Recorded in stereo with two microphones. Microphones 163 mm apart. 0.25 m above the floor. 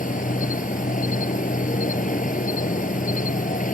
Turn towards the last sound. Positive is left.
turn(degrees=55)  # may be behind; listen again after turning